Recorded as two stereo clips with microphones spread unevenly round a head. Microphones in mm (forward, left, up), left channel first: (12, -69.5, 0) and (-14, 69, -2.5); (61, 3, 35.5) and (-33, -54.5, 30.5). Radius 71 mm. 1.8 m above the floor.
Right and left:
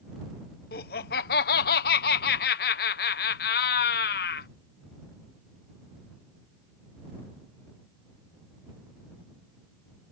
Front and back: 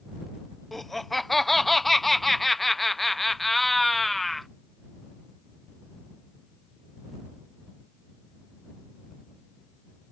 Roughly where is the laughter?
Ahead right.